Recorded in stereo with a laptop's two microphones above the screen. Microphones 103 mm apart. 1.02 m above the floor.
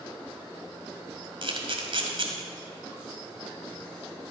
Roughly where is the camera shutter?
Right.